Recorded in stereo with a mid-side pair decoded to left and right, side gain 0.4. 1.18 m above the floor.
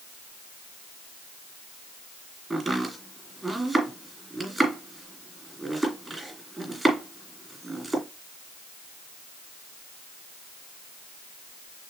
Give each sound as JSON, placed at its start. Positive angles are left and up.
{"t": 2.5, "sound": "chopping", "azimuth_deg": -25, "distance_m": 3.0}